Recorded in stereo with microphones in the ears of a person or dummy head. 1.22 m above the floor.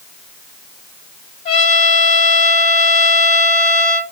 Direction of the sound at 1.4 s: 40° left (ahead or behind).